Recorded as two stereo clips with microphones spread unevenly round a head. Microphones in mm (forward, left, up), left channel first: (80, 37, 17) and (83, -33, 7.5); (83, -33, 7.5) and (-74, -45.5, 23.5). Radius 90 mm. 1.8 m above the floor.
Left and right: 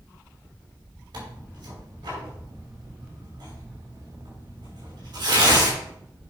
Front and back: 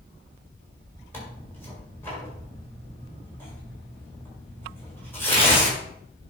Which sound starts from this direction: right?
Tearing paper, at 1.1 s.